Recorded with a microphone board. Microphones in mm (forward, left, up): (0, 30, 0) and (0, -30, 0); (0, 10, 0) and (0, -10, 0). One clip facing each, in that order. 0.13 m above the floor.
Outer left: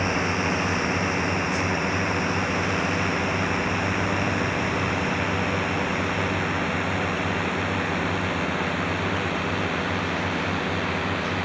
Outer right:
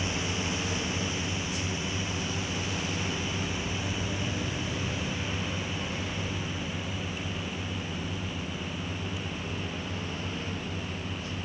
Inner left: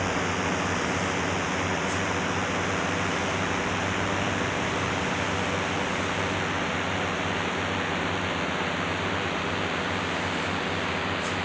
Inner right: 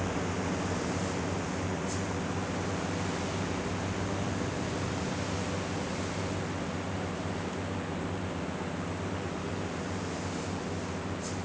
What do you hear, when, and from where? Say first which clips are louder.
0.0 s a drone: outer left 8 dB, inner left 6 dB; 50° left (ahead or behind); by 11.4 s 75° left (ahead or behind)